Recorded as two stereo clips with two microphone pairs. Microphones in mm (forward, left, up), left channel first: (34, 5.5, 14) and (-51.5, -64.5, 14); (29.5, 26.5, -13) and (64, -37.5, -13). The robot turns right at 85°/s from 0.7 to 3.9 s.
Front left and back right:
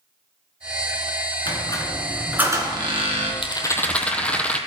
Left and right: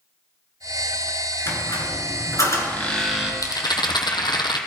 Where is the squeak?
70° left, 2.0 m; by 3.3 s 130° right, 2.0 m.